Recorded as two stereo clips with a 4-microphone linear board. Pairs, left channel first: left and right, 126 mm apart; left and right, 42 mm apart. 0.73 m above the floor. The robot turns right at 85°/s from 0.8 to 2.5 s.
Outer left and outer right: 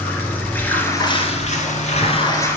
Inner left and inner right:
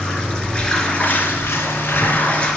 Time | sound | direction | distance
0.0 | running water | 15° left | 1.6 m